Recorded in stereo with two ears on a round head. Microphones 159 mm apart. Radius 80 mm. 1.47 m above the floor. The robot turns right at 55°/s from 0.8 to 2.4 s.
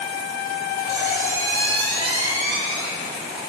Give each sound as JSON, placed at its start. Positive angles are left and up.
{"t": 0.9, "sound": "a squeak", "azimuth_deg": -155, "distance_m": 1.4}